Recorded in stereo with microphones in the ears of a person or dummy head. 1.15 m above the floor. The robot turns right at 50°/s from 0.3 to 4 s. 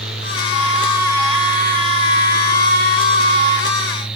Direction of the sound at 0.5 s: 140° left.